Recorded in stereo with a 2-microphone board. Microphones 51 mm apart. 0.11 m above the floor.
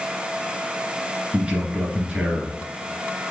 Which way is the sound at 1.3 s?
25° right (ahead or behind).